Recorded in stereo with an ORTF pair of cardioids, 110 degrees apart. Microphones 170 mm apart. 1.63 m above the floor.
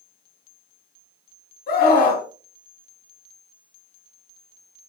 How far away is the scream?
About 1.1 m.